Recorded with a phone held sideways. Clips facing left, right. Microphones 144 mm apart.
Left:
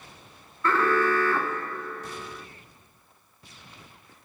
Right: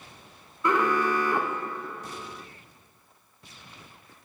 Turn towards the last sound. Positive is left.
turn(degrees=-15)  # may be behind; listen again after turning